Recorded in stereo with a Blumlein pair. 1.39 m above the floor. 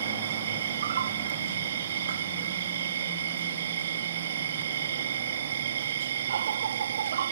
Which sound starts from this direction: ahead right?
An insect, at 0.0 s.